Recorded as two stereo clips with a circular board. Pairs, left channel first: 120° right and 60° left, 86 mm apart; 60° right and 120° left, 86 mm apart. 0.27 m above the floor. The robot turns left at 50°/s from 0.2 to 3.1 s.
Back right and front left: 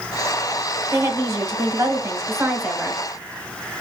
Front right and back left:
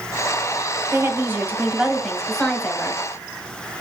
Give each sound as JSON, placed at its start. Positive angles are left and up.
{"t": 0.9, "sound": "a woman speaking", "azimuth_deg": 90, "distance_m": 1.2}